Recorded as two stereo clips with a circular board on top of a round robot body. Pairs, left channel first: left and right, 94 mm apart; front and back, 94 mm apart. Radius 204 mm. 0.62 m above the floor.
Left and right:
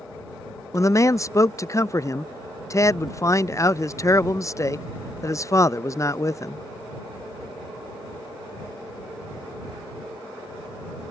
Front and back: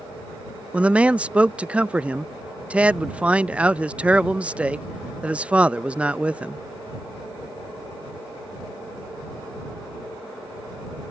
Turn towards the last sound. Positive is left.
turn(degrees=110)